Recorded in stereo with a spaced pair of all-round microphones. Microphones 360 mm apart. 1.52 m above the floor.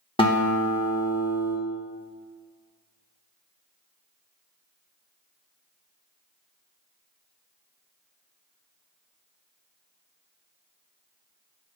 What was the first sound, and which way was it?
A guitar, 15° left (ahead or behind).